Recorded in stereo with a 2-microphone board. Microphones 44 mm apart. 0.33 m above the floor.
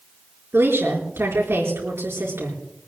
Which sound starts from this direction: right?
A woman speaking, at 0.5 s.